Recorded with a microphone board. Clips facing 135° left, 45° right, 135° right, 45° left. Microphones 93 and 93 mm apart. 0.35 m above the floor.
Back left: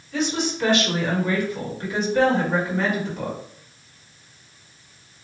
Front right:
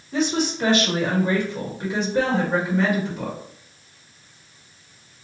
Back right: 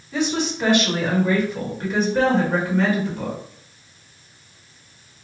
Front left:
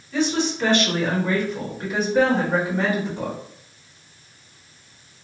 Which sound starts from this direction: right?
A woman speaking, at 0.1 s.